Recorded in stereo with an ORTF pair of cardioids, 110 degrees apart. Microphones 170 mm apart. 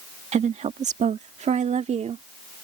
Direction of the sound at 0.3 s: 40° right.